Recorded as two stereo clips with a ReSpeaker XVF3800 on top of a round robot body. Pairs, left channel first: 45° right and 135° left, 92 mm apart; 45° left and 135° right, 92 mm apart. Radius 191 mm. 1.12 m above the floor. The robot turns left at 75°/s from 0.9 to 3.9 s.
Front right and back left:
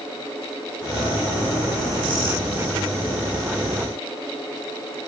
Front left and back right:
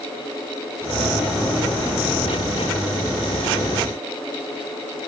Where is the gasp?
I don't hear a gasp.